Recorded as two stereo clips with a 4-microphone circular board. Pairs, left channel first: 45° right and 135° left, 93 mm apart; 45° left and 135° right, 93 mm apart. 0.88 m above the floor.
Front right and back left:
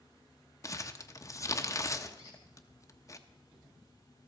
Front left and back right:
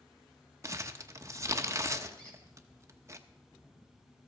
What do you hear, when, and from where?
0.6 s crumpling: 90° right, 0.7 m
2.2 s a squeak: 125° left, 3 m